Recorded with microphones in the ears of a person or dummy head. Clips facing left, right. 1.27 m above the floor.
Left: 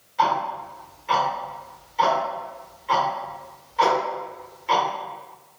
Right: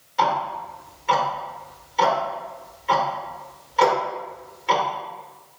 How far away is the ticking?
About 0.9 m.